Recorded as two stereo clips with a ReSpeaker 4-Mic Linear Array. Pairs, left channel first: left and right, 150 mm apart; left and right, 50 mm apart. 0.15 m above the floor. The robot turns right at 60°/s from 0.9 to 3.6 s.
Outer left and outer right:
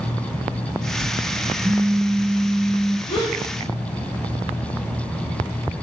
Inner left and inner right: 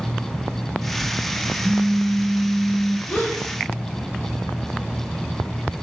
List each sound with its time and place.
1.6 s a phone buzzing: 30° right, 1.6 m; by 3.0 s 50° left, 1.6 m
3.1 s a gasp: 40° left (ahead or behind), 2.5 m; by 3.4 s 25° left (ahead or behind), 2.5 m